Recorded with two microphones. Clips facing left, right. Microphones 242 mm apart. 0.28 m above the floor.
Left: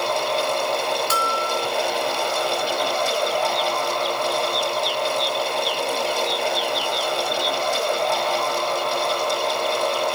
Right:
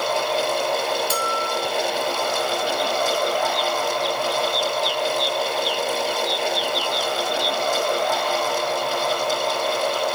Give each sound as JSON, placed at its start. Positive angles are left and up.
{"t": 1.1, "sound": "a bell", "side_deg": 70, "distance_m": 3.0}